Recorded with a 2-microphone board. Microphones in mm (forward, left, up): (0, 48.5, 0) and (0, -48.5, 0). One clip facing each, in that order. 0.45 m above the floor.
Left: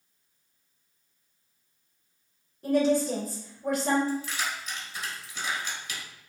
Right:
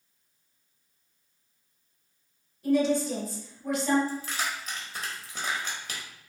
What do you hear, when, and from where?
2.6 s a woman speaking: 50° left (ahead or behind), 1.8 m
4.1 s keys jangling: 50° right (ahead or behind), 1.2 m